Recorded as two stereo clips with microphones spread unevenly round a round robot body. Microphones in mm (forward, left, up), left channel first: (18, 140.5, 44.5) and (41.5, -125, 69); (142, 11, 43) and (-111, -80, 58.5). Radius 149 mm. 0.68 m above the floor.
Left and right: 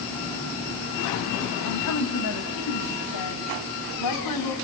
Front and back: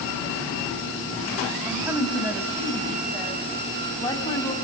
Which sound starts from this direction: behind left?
A woman speaking, at 1.6 s.